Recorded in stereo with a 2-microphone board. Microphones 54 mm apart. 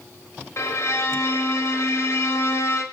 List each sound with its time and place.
0.6 s a violin: 60° left (ahead or behind), 0.9 m